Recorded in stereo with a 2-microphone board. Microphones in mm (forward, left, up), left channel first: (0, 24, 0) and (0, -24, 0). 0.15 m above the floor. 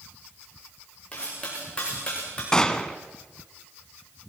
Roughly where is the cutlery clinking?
Left.